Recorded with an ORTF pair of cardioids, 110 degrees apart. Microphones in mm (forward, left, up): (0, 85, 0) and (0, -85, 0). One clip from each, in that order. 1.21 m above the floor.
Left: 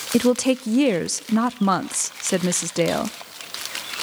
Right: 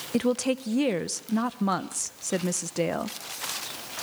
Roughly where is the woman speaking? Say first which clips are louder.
Left 6 dB; ahead left.